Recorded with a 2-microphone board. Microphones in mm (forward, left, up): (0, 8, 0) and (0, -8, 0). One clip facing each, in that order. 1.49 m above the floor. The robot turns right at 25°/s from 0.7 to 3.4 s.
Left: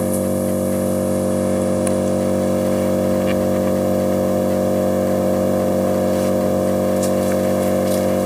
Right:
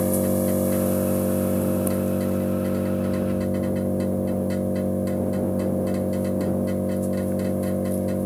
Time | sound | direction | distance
0.0 | an engine running | 25° left | ?